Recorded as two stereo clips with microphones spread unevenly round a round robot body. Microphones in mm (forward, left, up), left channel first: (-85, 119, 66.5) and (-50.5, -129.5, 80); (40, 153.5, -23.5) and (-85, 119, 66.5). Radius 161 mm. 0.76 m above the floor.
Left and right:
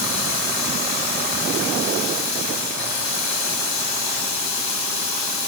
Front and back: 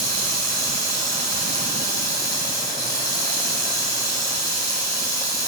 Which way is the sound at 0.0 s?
85° left.